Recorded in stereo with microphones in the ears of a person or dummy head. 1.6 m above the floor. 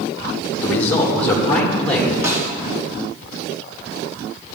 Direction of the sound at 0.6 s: 15° left (ahead or behind).